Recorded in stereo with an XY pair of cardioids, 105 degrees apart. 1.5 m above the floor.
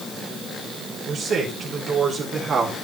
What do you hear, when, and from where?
1.1 s a man speaking: 55° right, 5 m